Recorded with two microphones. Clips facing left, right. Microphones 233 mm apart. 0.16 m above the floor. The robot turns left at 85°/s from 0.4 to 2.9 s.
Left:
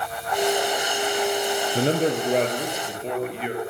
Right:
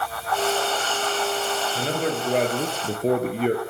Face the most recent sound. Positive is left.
turn(degrees=-45)